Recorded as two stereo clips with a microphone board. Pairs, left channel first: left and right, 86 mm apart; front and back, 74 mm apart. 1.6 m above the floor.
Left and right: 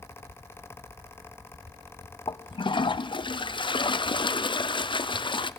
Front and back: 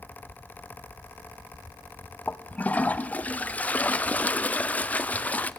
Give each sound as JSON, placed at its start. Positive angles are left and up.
{"t": 2.3, "sound": "a toilet flushing", "azimuth_deg": 70, "distance_m": 0.6}